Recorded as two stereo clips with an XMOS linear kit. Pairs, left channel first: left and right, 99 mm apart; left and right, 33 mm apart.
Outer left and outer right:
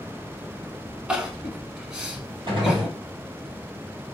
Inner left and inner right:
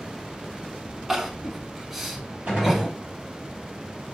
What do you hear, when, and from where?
1.1 s crying: 10° right (ahead or behind), 0.6 m
2.5 s a gunshot: 55° right (ahead or behind), 1.6 m